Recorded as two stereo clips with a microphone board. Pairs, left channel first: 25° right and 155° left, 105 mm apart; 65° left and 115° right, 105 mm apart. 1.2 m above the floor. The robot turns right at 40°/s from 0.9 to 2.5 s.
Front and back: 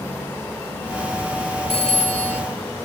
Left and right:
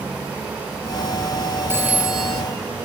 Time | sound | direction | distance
1.7 | a phone ringing | 45° right | 1.5 m